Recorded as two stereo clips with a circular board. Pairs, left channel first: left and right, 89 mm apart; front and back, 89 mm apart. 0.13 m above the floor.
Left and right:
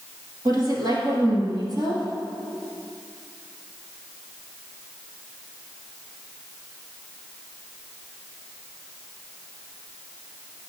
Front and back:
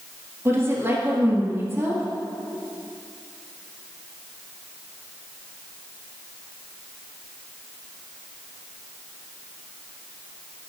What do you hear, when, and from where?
0.5 s a woman speaking: 125° right, 2 m